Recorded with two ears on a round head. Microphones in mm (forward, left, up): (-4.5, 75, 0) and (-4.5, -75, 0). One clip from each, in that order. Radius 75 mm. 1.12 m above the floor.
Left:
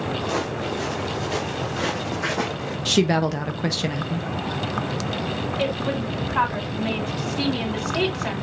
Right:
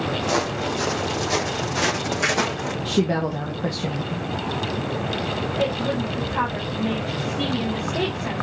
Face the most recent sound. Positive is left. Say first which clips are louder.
# right 1 dB
turn(degrees=50)  # may be behind; listen again after turning